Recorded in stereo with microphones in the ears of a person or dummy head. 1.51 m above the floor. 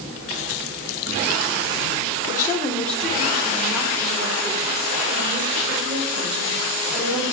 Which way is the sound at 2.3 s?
20° left (ahead or behind).